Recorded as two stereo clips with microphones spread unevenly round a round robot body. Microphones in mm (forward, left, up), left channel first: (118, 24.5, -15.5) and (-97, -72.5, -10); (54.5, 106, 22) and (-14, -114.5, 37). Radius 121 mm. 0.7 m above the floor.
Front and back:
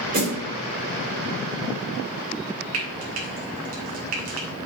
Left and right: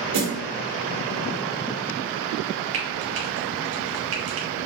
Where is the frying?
135° right, 2.0 m.